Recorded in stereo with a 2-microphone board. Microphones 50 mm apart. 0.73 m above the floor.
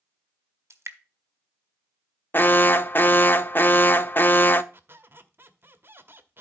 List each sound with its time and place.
0.7 s dripping: 65° right (ahead or behind), 1.5 m
2.3 s an alarm: 40° left (ahead or behind), 0.6 m
4.7 s a squeak: 50° right (ahead or behind), 1.0 m